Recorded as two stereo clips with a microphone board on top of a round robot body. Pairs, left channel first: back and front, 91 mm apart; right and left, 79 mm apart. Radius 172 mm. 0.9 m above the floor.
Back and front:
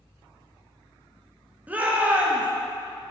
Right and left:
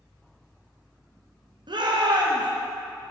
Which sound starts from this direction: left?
A shout, at 1.7 s.